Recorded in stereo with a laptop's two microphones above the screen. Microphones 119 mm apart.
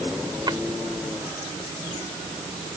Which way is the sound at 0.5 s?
40° right (ahead or behind).